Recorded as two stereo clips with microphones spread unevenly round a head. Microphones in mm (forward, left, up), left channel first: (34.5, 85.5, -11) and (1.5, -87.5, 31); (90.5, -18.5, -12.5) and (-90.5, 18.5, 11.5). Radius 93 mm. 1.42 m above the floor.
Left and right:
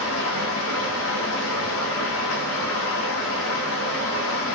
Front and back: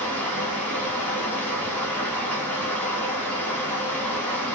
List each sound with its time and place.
0.0 s running water: 75° left, 1.4 m